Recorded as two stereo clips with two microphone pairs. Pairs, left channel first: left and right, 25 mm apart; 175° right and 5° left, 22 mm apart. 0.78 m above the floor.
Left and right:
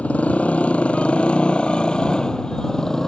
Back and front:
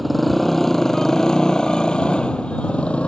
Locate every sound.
0.0 s a motorcycle: 100° left; by 3.1 s 155° left